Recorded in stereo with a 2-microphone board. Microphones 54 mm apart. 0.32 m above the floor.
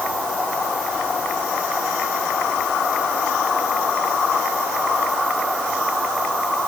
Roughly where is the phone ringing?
I don't hear a phone ringing.